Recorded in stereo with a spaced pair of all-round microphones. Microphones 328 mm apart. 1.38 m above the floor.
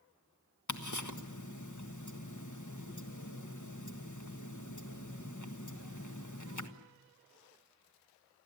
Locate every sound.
0.7 s ticking: 60° left (ahead or behind), 1.6 m